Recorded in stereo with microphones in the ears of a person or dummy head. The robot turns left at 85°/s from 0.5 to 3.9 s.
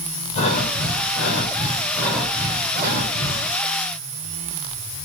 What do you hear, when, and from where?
0.3 s breathing: 140° left, 7 m; by 3.6 s 120° right, 7 m